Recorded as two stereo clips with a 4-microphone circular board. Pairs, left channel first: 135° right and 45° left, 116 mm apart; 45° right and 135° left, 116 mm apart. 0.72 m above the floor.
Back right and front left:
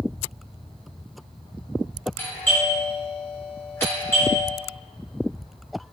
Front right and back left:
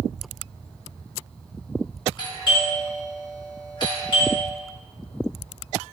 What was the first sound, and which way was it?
A doorbell, 75° right.